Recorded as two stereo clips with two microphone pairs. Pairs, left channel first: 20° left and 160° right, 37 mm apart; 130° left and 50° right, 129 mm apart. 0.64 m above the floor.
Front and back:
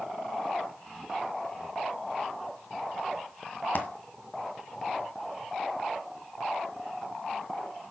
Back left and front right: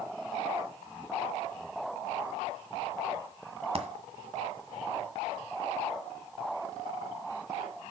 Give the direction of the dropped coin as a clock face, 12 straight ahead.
12 o'clock.